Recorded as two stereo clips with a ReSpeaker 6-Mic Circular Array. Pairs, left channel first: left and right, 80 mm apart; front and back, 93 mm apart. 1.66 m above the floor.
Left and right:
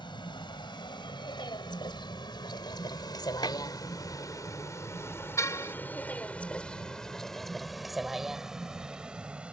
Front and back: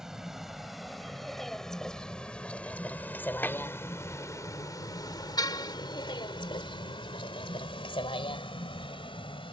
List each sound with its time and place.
0.0 s a vehicle: 95° left; by 9.5 s 15° right
3.4 s dishes clattering: 70° left
5.4 s a car horn: 40° left